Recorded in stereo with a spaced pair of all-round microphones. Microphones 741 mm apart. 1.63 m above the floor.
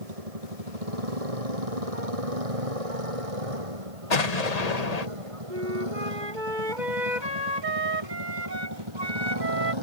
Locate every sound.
0.0 s a motorcycle: 50° right (ahead or behind); by 9.8 s 40° right (ahead or behind)
4.1 s an explosion: 60° left (ahead or behind)
5.5 s a flute: 85° right